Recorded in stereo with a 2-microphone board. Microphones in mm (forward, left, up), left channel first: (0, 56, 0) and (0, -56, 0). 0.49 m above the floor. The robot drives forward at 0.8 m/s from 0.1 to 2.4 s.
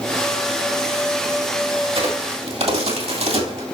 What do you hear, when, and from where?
1.9 s a crack: 55° right (ahead or behind), 2.5 m; by 3.6 s 65° right (ahead or behind), 2.5 m